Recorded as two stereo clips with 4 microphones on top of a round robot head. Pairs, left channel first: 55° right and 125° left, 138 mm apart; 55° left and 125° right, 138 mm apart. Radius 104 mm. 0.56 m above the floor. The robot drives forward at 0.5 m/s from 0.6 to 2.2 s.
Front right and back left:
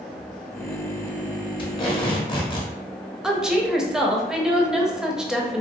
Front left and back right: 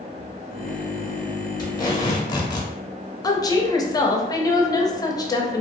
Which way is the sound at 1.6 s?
5° right.